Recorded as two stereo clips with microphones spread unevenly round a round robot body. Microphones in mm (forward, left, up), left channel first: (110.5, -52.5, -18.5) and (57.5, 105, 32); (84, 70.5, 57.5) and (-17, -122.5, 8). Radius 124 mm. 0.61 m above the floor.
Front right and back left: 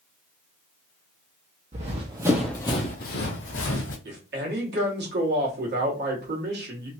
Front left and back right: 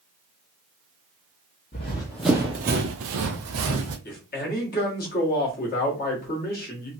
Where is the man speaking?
110° left, 1.3 m.